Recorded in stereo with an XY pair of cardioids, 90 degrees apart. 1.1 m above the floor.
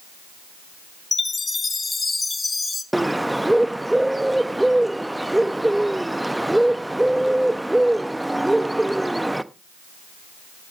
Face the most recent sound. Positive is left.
turn(degrees=-10)